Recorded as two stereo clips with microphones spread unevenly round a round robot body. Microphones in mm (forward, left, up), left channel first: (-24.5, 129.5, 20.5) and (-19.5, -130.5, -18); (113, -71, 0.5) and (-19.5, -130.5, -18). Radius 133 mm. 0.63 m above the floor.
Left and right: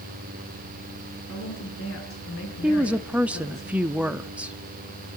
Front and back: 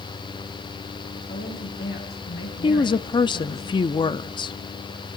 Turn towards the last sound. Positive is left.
turn(degrees=-20)